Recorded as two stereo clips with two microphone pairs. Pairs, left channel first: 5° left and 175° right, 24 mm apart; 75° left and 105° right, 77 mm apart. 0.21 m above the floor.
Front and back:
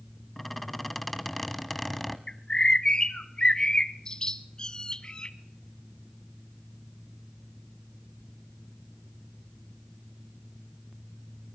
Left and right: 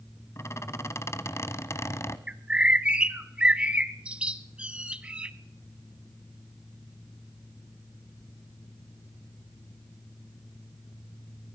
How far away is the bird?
About 0.8 m.